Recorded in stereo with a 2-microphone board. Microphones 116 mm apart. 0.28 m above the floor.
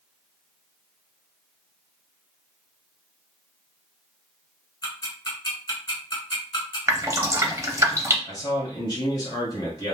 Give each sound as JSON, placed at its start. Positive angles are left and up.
{"t": 4.8, "sound": "ticking", "side_deg": 30, "distance_m": 1.7}
{"t": 6.9, "sound": "dripping", "side_deg": -25, "distance_m": 0.6}
{"t": 8.2, "sound": "a man speaking", "side_deg": 30, "distance_m": 1.7}